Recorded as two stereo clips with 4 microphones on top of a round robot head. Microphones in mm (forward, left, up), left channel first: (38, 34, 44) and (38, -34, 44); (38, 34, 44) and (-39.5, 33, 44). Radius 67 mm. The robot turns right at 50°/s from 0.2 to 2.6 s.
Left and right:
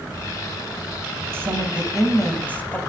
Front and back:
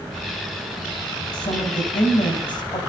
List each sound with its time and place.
1.3 s a woman speaking: 35° right, 3.5 m; by 2.8 s 25° left, 3.5 m